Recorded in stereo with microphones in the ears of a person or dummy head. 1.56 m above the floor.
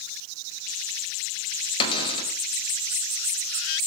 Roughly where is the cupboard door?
Left.